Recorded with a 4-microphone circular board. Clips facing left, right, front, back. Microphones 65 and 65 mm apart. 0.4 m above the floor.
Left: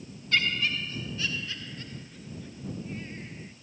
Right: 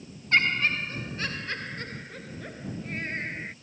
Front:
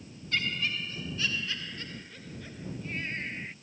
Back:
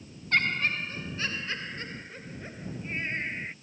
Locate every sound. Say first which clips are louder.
0.3 s laughter: right 4 dB, back 5 dB; 140° right; by 3.5 s 115° right